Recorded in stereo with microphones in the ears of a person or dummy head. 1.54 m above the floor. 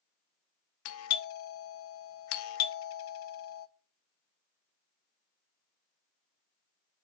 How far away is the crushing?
No crushing in this recording.